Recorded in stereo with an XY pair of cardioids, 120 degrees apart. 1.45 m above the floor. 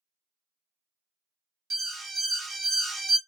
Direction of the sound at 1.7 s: 45° right.